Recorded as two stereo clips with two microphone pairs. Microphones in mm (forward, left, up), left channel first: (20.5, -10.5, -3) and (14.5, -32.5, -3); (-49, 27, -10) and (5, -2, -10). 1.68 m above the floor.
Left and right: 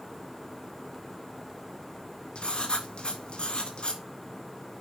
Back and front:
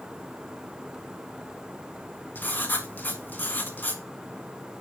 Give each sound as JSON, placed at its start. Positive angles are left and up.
{"t": 2.4, "sound": "writing", "azimuth_deg": 100, "distance_m": 1.7}